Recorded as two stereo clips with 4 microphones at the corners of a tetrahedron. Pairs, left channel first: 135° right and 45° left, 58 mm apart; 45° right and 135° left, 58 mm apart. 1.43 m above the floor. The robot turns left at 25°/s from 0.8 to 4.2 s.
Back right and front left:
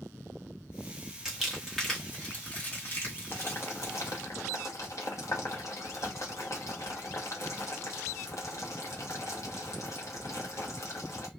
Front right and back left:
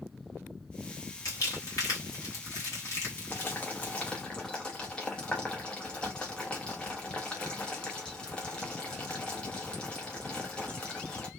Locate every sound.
1.2 s crumpling: 40° right, 1.2 m; by 4.1 s 110° right, 1.2 m
3.3 s boiling: 90° right, 0.9 m; by 11.3 s 115° right, 0.9 m